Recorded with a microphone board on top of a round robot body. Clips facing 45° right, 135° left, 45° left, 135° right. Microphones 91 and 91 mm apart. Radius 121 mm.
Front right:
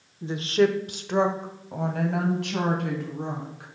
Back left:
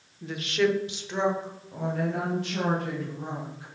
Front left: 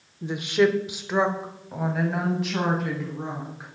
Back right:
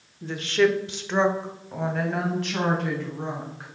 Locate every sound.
0.2 s a woman speaking: 10° right, 1.1 m; by 3.7 s 40° right, 4.5 m